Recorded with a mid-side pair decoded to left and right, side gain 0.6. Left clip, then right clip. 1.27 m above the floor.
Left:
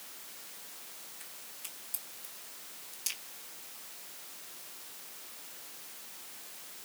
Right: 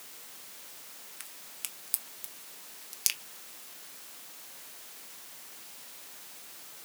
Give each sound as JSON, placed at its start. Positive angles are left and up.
{"t": 1.2, "sound": "a crack", "azimuth_deg": -60, "distance_m": 0.9}